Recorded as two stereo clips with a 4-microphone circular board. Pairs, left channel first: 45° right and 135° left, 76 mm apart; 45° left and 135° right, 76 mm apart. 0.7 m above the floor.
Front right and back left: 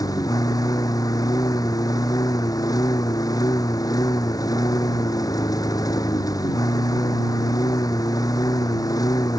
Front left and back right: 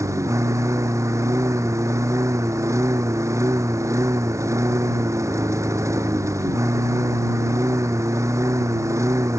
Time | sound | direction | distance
0.0 | a lawn mower | 85° right | ?